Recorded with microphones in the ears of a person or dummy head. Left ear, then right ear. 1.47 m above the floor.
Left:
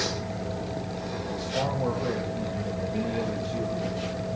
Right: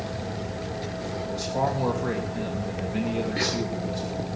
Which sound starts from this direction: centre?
A man speaking, at 1.3 s.